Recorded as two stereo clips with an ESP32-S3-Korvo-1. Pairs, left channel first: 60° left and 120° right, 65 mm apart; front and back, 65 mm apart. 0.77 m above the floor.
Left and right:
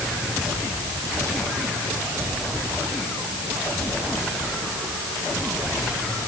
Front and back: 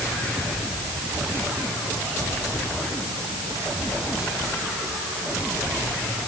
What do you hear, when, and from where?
Only background noise.